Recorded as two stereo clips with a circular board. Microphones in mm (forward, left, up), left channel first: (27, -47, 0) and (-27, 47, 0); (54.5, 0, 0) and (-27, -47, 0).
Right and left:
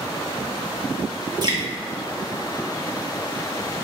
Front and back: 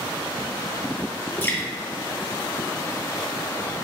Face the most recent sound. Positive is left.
turn(degrees=90)